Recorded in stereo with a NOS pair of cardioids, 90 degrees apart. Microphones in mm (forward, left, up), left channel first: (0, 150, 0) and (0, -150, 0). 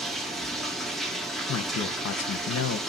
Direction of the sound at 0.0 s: Straight ahead.